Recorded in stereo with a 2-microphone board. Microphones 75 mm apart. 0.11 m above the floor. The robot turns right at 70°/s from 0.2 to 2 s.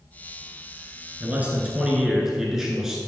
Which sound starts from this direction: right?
A man speaking, at 1.2 s.